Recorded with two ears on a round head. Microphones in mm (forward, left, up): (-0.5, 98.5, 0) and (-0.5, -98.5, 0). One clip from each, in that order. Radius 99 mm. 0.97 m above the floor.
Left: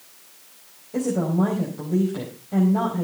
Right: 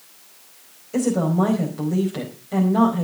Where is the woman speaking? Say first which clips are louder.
Right 3 dB; 70° right (ahead or behind), 4.5 m.